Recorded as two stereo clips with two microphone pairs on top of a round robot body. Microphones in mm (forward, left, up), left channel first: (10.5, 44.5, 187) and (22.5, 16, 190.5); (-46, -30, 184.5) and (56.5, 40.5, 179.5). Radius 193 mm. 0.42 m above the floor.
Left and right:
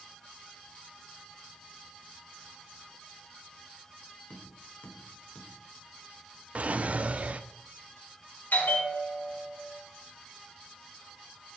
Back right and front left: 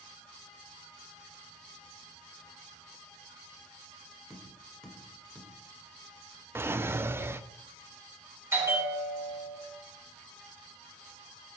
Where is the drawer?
30° right, 0.8 m.